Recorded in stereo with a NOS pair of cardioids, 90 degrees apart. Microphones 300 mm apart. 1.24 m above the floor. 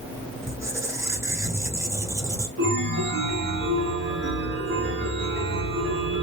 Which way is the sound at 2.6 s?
35° right.